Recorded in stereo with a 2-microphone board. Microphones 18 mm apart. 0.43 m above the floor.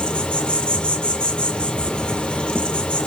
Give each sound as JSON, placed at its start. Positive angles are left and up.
{"t": 0.0, "sound": "an insect", "side_deg": 65, "distance_m": 1.1}